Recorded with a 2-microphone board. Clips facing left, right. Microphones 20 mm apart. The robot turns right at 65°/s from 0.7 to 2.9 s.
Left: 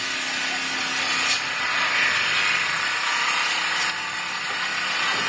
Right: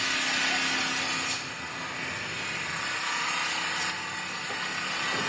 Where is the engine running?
5° left, 1.5 m; by 5.3 s 150° left, 1.5 m.